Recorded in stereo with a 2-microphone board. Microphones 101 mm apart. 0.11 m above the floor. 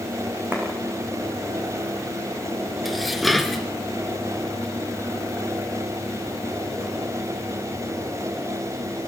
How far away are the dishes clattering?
About 1.1 m.